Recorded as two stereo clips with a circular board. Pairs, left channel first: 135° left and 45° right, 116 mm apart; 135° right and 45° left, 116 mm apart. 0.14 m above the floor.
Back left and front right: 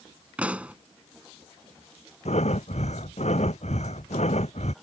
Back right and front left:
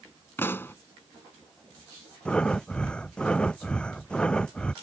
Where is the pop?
105° right.